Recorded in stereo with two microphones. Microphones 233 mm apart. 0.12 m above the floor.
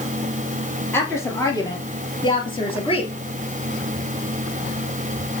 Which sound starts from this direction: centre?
A woman speaking, at 0.9 s.